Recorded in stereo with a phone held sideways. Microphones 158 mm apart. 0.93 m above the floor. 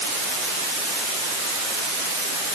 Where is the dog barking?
I don't hear a dog barking.